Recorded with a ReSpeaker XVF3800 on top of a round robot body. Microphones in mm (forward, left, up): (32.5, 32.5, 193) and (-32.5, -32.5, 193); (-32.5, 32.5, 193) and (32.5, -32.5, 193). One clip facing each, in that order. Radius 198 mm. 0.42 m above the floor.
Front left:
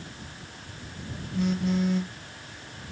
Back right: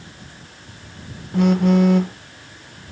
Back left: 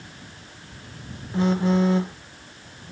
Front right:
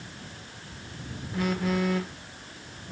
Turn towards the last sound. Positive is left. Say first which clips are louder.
# back right 11 dB, back left 6 dB
turn(degrees=-160)